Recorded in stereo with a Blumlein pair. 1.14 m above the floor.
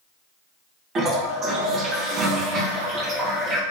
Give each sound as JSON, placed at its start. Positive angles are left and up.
{"t": 0.9, "sound": "a toilet flushing", "azimuth_deg": -25, "distance_m": 0.7}